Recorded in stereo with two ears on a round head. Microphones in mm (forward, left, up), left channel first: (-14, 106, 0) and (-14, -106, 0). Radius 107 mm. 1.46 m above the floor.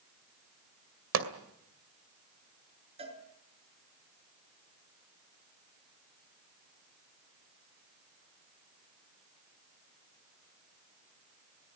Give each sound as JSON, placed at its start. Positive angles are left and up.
{"t": 1.1, "sound": "a pop", "side_deg": -60, "distance_m": 2.5}
{"t": 3.0, "sound": "a cowbell", "side_deg": -25, "distance_m": 6.5}